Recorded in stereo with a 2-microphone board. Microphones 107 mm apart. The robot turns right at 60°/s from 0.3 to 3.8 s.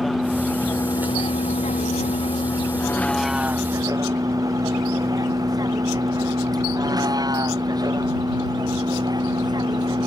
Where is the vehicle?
Centre (ahead or behind); by 10.1 s 40° right (ahead or behind).